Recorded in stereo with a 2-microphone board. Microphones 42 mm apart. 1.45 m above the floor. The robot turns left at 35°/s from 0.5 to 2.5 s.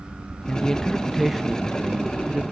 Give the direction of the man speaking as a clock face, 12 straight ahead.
11 o'clock.